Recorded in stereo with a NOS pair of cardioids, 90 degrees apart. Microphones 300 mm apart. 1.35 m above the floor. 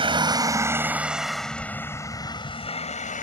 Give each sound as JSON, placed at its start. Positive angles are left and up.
{"t": 0.0, "sound": "a vehicle", "azimuth_deg": -15}